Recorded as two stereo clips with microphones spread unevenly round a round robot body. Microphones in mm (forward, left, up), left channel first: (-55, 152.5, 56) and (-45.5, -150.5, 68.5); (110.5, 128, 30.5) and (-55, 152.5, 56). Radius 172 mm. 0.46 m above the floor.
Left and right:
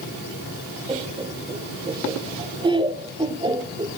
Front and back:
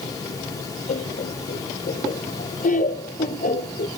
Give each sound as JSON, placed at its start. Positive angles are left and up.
{"t": 0.9, "sound": "laughter", "azimuth_deg": -15, "distance_m": 1.5}